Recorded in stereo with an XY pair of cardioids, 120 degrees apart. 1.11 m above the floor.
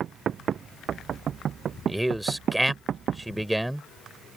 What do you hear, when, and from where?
1.9 s a man speaking: 10° right